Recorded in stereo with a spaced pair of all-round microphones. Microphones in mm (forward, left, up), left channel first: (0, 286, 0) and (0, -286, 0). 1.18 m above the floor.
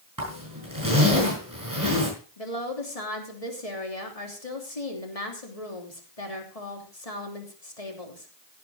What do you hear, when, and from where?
0.2 s a zipper: 35° right (ahead or behind), 6 m
2.4 s a woman speaking: 80° left, 3 m